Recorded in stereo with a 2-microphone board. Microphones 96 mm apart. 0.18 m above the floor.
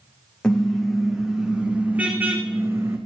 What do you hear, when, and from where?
0.4 s a car horn: 10° left (ahead or behind), 4.5 m; by 3.0 s 30° right (ahead or behind), 5 m